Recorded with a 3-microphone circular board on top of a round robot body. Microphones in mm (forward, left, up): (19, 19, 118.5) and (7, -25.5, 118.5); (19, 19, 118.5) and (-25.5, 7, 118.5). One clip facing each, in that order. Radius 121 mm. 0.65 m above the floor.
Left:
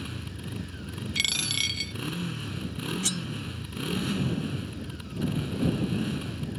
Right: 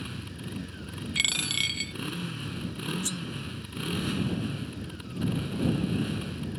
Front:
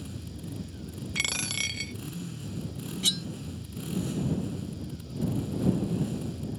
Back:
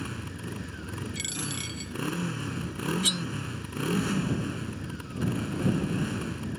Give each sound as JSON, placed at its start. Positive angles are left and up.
{"t": 0.0, "sound": "a motorcycle", "azimuth_deg": 170}
{"t": 1.1, "sound": "a dropped coin", "azimuth_deg": -20}
{"t": 3.0, "sound": "cutlery clinking", "azimuth_deg": 110}